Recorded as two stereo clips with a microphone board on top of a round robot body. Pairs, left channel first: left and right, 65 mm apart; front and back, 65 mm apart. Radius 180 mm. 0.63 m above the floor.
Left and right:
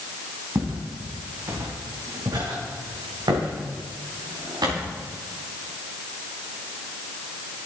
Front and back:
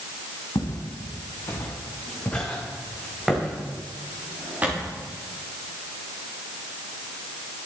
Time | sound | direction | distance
0.6 | footsteps | 30° right | 3.5 m